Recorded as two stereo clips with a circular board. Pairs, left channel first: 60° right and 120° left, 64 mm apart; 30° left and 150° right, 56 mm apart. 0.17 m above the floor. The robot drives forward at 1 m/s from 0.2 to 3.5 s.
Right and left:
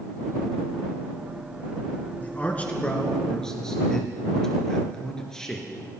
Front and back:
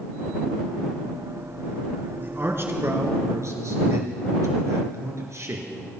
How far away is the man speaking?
About 2.5 m.